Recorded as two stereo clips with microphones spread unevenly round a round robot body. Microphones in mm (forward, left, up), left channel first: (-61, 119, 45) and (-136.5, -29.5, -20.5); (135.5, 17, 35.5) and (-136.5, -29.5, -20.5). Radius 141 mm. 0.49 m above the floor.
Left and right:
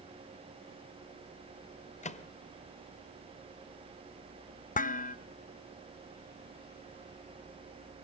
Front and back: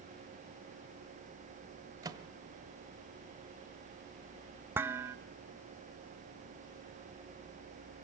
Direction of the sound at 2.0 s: 115° left.